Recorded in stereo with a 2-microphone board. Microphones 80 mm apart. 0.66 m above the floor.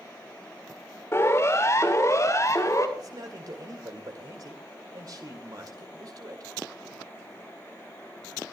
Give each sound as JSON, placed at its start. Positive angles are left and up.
{"t": 1.1, "sound": "a siren", "side_deg": 35, "distance_m": 2.5}
{"t": 3.0, "sound": "a man speaking", "side_deg": -50, "distance_m": 2.0}